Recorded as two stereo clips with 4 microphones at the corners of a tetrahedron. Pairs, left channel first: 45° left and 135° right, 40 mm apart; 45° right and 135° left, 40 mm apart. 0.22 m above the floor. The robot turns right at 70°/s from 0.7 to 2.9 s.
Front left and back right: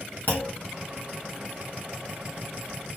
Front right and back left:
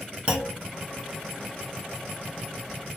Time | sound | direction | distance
0.3 | a clunk | 75° left | 1.4 m